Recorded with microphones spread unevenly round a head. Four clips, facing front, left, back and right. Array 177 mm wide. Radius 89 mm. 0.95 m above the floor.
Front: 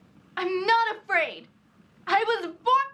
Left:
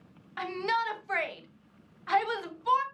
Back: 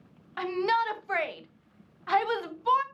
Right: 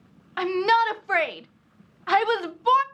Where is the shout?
65° right, 1.2 m.